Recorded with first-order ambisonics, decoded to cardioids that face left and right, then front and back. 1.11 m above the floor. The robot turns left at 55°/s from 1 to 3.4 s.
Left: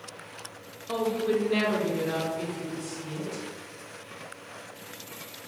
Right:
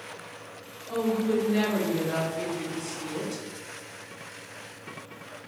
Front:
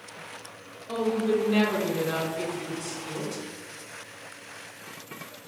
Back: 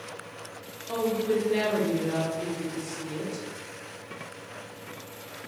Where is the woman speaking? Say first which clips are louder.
Even, front 1 dB; 80° left, 1.4 m; by 3.4 s 50° right, 1.4 m.